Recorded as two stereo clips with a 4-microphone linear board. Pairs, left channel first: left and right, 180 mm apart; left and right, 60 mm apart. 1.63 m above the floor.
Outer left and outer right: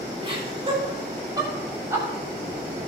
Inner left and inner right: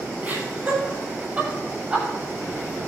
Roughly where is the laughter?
Right.